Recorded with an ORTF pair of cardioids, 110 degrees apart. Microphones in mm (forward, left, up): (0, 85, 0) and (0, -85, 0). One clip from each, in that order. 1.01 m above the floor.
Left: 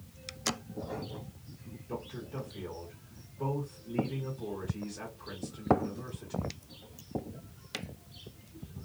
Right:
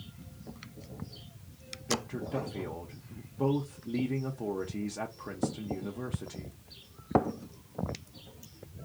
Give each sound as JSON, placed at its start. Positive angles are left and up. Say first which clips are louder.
{"t": 1.9, "sound": "a man speaking", "louder": "right 7 dB", "azimuth_deg": -50, "distance_m": 0.8}